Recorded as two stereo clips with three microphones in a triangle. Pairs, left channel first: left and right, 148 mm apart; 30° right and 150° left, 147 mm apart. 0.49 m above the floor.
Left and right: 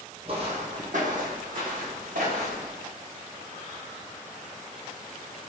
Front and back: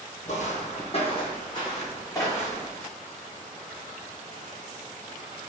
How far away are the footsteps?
About 0.8 m.